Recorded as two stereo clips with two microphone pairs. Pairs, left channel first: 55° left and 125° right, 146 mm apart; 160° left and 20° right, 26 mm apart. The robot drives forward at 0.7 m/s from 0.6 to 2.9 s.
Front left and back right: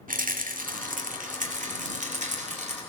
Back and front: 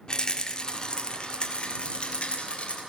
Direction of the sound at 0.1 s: 145° right.